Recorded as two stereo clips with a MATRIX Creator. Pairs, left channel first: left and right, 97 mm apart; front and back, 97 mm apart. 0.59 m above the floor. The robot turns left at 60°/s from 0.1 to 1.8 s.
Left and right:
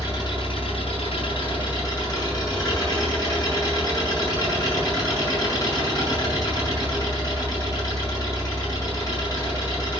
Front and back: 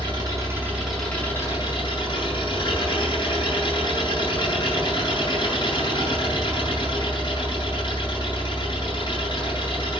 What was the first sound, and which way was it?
An engine running, 140° left.